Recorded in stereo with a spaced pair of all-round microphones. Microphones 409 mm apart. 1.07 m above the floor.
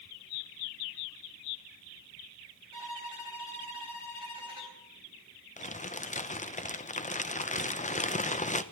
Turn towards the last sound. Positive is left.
turn(degrees=20)  # may be behind; listen again after turning